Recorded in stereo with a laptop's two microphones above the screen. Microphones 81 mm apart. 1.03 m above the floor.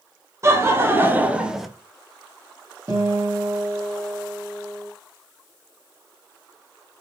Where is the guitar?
35° right (ahead or behind), 1.3 m.